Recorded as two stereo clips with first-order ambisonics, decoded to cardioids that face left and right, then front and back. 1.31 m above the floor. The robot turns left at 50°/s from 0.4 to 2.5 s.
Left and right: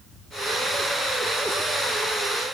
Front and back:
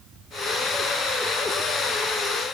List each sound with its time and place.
Only background noise.